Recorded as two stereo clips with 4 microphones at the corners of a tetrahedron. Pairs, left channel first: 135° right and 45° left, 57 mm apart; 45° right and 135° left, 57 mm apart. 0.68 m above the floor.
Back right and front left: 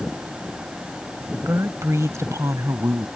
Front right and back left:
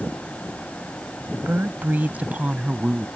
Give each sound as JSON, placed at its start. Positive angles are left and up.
{"t": 1.3, "sound": "a woman speaking", "azimuth_deg": 85}